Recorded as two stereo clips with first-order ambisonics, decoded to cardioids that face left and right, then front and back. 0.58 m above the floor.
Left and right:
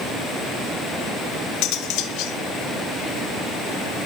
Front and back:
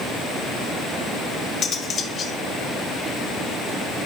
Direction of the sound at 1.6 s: 65° left.